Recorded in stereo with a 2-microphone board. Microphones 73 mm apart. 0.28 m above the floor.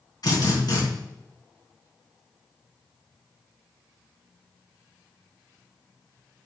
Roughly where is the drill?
Left.